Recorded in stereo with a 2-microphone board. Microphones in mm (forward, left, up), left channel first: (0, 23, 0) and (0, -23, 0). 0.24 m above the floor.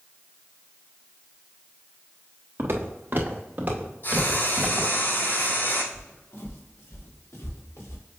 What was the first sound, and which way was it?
Footsteps, 55° right (ahead or behind).